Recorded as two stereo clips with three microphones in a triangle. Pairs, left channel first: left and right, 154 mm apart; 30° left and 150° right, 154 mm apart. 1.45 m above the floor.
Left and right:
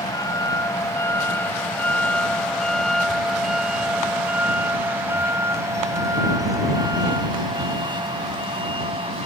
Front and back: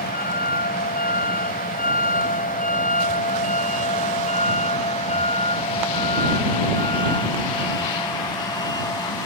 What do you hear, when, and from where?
0.0 s a vehicle: 25° left; by 9.3 s 35° right